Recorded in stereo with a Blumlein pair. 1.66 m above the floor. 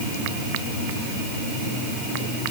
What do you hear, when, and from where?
Only background noise.